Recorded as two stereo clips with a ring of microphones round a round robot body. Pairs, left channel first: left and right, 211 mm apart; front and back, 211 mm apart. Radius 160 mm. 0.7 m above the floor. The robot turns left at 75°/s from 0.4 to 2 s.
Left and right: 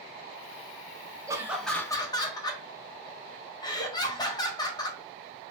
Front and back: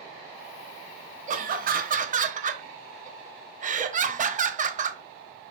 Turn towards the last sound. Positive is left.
turn(degrees=150)